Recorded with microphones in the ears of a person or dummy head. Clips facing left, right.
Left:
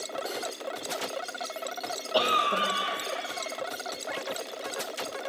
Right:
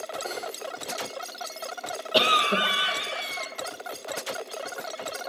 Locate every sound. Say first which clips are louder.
0.2 s cutlery clinking: right 1 dB; 10° left (ahead or behind), 1.7 m
2.1 s a cough: right 3 dB; 30° right (ahead or behind), 0.8 m